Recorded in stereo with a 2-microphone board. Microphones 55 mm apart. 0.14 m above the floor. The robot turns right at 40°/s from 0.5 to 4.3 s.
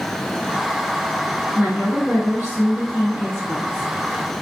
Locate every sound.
1.5 s a woman speaking: 160° right, 1.8 m; by 3.9 s 65° right, 1.8 m